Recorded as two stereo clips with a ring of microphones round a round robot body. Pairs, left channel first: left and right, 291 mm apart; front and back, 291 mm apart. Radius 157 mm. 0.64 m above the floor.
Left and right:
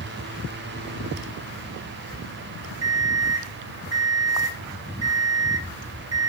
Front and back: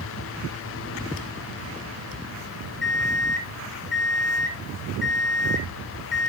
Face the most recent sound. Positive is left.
turn(degrees=-50)